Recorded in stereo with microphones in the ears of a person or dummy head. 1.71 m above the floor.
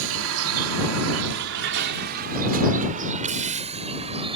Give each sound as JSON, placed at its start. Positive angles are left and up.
{"t": 0.0, "sound": "a vehicle", "side_deg": -70}